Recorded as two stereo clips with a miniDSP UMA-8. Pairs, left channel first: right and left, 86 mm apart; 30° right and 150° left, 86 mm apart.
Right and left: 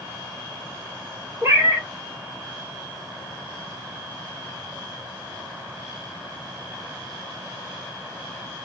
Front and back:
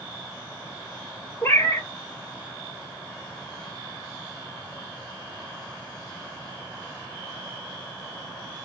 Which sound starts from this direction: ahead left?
A cat meowing, at 1.4 s.